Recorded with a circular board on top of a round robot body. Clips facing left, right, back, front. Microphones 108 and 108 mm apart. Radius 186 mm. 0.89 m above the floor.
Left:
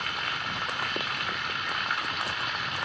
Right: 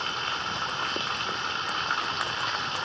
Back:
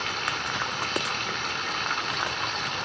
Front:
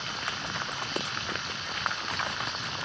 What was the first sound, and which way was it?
Running water, 150° right.